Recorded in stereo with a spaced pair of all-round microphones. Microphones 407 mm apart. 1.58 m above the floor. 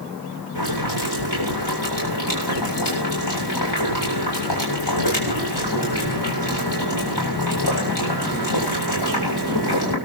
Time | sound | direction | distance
0.6 | boiling | 75° left (ahead or behind) | 7.5 m